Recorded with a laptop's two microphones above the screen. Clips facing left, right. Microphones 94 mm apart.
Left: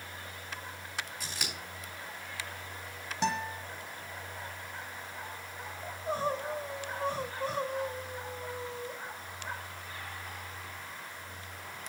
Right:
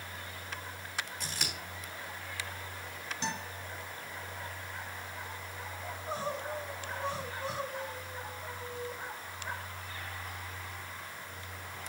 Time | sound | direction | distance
1.2 | scissors | 10° left (ahead or behind) | 3.5 m
3.2 | a guitar | 70° left (ahead or behind) | 1.7 m
5.8 | crying | 50° left (ahead or behind) | 2.5 m